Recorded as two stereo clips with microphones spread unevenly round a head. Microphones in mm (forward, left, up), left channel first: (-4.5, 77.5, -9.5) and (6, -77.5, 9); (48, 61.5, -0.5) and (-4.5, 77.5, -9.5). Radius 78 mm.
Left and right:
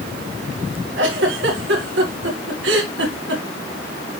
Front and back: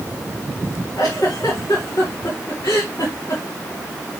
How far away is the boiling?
I don't hear boiling.